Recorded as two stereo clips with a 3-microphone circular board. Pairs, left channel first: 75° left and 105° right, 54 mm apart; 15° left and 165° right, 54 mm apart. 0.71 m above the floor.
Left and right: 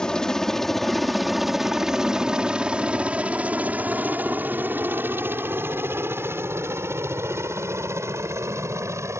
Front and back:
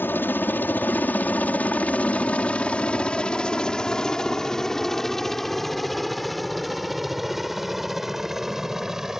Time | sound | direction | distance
0.0 | a helicopter | 5° left | ?